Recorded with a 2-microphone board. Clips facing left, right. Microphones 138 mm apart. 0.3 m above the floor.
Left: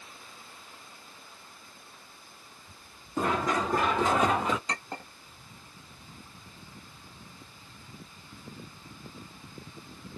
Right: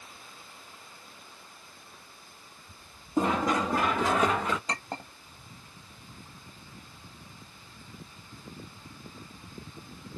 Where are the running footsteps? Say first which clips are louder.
Right 2 dB; 25° right (ahead or behind), 1.2 m; by 4.6 s 10° left (ahead or behind), 1.6 m.